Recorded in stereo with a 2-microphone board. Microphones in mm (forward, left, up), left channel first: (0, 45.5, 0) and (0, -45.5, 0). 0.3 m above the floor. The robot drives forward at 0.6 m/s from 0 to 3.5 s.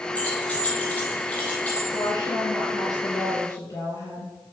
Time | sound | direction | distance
0.1 | keys jangling | 15° left (ahead or behind) | 6 m
1.9 | a woman speaking | 45° left (ahead or behind) | 5 m